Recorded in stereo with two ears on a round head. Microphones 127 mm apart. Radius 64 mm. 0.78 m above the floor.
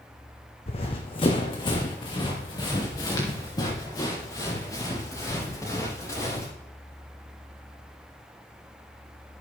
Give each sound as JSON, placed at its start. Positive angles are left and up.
{"t": 0.7, "sound": "running footsteps", "side_deg": 45, "distance_m": 1.7}